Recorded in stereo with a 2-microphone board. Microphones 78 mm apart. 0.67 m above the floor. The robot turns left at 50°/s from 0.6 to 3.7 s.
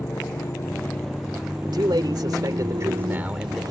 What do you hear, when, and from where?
0.0 s a motorcycle: 35° left; by 3.7 s 120° right
1.6 s a man speaking: 75° right; by 3.6 s 175° right